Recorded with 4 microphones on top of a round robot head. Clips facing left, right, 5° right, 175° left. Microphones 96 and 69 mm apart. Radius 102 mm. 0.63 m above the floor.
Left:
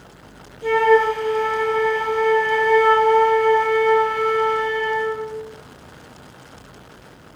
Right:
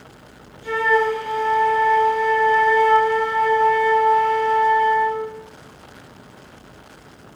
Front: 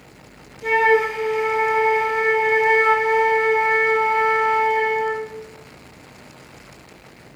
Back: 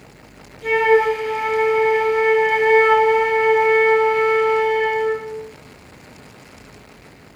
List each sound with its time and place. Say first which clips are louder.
0.6 s a flute: left 4 dB, back 2 dB; 65° left, 0.8 m